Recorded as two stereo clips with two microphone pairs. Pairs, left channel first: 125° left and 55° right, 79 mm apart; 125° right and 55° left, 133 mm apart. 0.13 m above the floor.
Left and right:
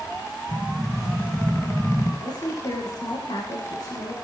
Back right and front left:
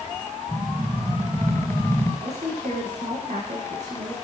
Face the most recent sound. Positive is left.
turn(degrees=90)